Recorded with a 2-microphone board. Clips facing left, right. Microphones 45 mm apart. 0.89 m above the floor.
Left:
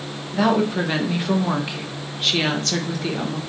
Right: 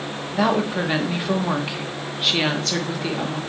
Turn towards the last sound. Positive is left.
turn(degrees=-5)  # may be behind; listen again after turning